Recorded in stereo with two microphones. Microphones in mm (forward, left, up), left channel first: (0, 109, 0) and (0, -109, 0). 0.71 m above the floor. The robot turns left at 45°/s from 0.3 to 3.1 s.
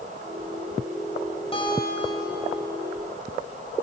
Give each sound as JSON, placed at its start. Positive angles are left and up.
{"t": 1.5, "sound": "a guitar", "azimuth_deg": 25, "distance_m": 3.5}